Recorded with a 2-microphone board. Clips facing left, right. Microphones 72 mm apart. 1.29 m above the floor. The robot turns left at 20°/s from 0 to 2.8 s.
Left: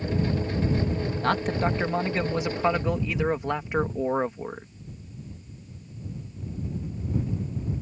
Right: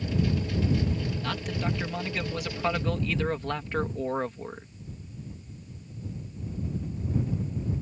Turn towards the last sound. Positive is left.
turn(degrees=20)